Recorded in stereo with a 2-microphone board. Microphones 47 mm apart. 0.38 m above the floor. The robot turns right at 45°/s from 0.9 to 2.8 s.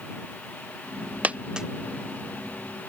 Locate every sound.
1.2 s a dropped coin: 35° right (ahead or behind); by 1.7 s 15° right (ahead or behind)